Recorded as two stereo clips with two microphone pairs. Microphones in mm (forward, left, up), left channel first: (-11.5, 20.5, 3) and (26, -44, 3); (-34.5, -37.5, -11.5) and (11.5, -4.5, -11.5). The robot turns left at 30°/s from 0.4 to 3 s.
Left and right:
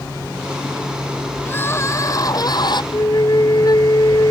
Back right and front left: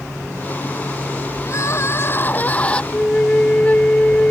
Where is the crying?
175° right; by 2.8 s 145° left.